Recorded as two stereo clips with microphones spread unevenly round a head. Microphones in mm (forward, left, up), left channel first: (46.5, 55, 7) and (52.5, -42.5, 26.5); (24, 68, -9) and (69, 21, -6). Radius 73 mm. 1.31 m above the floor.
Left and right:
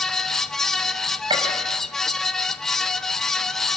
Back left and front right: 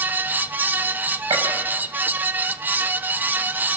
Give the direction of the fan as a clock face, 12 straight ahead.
12 o'clock.